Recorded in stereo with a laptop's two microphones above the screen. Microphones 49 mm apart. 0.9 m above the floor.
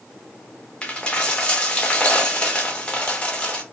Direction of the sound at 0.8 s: 20° left (ahead or behind).